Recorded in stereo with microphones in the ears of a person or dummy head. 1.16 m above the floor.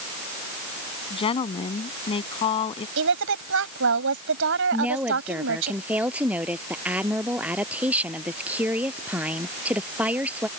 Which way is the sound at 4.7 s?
5° right (ahead or behind).